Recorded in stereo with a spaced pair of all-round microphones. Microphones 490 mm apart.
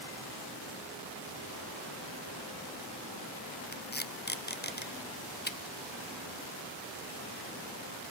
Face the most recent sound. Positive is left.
turn(degrees=20)  # may be behind; listen again after turning